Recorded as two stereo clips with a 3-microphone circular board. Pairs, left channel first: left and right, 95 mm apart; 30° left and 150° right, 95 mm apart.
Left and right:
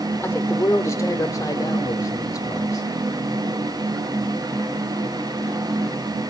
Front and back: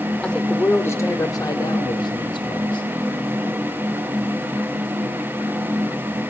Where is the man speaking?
100° left, 1.3 m; by 2.9 s 45° left, 2.5 m.